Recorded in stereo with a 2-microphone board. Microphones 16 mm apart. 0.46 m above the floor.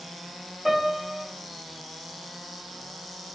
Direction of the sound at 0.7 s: 15° right (ahead or behind).